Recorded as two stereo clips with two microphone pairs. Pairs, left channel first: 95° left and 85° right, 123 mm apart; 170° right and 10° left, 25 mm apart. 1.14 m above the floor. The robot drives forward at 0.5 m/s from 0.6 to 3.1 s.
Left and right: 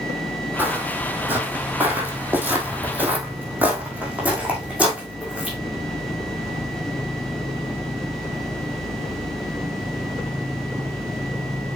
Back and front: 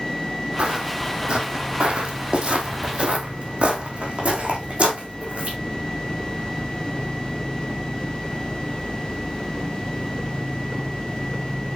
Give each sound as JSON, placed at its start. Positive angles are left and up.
{"t": 0.6, "sound": "footsteps", "azimuth_deg": -15, "distance_m": 2.0}